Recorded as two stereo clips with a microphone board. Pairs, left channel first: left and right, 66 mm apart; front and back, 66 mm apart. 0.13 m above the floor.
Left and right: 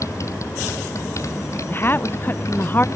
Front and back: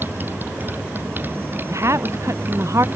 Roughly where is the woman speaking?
Behind left.